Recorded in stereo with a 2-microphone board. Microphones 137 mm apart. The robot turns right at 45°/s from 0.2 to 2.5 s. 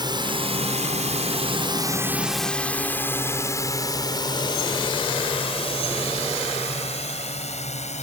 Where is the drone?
35° right (ahead or behind); by 8.0 s 60° left (ahead or behind).